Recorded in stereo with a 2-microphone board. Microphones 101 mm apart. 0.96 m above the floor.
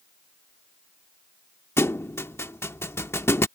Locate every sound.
1.8 s a thud: 25° left (ahead or behind)